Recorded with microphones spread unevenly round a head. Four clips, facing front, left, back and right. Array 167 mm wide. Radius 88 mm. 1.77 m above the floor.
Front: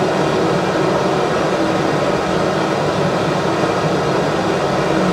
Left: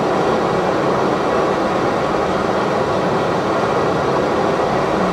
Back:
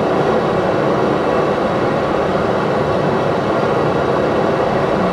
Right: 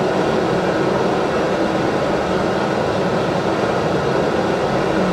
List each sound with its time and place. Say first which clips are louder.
0.0 s running water: left 1 dB, back 1 dB; 125° left, 3.5 m